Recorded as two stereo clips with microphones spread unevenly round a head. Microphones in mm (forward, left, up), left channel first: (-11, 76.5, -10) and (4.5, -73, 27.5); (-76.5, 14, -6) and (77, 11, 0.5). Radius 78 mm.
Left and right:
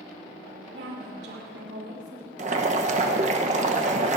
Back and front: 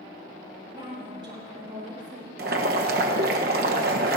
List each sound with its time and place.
0.7 s a woman speaking: 65° right, 4 m
2.4 s boiling: 35° right, 1.1 m